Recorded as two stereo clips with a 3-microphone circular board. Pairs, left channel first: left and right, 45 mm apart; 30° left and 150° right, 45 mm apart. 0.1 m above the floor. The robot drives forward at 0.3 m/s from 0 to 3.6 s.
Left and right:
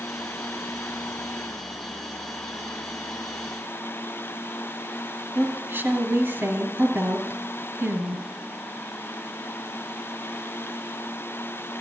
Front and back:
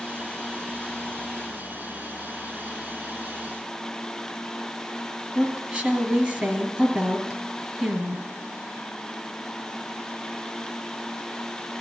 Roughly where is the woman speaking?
Right.